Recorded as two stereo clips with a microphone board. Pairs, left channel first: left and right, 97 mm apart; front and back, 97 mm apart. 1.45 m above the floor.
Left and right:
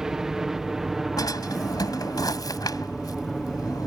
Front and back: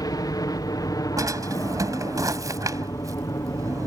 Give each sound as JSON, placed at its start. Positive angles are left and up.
{"t": 0.0, "sound": "a helicopter", "azimuth_deg": -10}
{"t": 1.2, "sound": "a drawer", "azimuth_deg": 130}